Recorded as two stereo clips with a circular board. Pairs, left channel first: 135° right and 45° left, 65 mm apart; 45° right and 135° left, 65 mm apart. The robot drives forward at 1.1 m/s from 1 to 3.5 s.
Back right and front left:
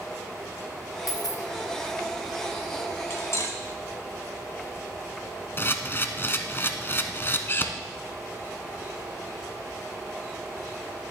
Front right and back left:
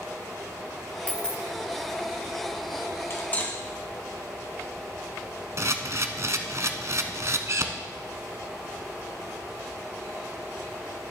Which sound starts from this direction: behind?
A camera shutter, at 5.6 s.